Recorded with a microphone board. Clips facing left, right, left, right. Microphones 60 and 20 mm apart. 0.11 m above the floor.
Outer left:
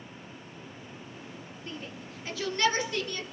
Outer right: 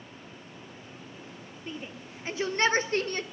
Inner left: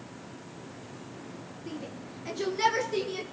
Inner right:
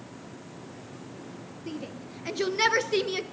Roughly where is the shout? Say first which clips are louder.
Outer right 2 dB, inner right 2 dB; centre.